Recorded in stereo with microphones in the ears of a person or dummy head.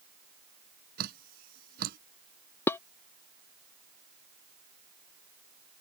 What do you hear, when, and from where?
1.0 s dripping: 50° right (ahead or behind)
2.7 s dishes clattering: 15° left (ahead or behind)